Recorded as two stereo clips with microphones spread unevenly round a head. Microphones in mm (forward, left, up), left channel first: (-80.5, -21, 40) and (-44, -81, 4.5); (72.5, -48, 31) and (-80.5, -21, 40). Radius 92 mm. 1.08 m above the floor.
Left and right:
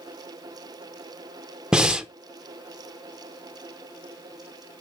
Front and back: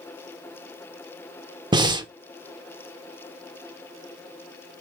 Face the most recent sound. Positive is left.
turn(degrees=-125)